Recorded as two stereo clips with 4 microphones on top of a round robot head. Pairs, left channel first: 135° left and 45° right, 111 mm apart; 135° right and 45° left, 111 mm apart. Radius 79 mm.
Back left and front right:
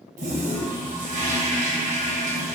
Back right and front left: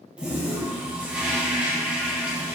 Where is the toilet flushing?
40° right, 1.6 m.